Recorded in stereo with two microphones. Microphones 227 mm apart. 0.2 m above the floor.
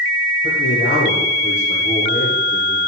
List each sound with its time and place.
0.4 s a man speaking: 35° left (ahead or behind), 6.5 m